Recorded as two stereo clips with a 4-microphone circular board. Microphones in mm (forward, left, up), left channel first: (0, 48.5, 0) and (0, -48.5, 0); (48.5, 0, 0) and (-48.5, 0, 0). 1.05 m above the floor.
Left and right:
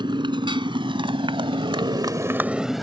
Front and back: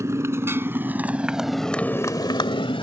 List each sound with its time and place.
0.0 s a motorcycle: 120° right; by 2.8 s straight ahead